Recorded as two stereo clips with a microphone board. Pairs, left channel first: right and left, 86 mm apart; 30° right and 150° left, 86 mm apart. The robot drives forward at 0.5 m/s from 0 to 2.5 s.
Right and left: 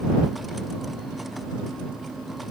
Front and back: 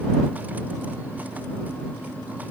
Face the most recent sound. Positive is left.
No sound to turn to.